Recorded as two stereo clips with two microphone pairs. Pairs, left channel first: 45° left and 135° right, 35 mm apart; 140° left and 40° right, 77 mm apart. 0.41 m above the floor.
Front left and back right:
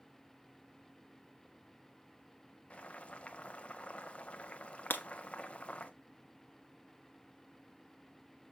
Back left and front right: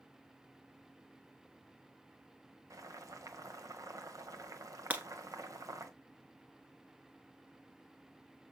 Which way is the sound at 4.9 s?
30° left.